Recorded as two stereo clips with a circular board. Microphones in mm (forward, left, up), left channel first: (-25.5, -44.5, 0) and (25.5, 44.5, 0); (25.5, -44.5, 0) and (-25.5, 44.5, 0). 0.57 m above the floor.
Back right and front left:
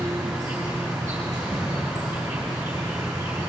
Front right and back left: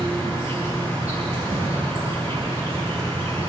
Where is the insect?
Straight ahead, 6 m.